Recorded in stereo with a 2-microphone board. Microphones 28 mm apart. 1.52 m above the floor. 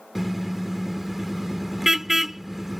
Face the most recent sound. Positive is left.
turn(degrees=-10)  # may be behind; listen again after turning